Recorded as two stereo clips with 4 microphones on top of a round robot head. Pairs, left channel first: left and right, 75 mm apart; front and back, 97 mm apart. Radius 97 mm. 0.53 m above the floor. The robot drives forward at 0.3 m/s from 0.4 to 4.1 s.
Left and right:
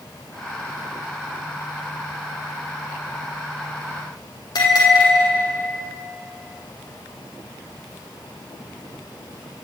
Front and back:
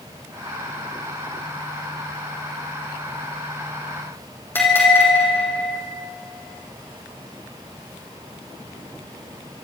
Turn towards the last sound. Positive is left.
turn(degrees=70)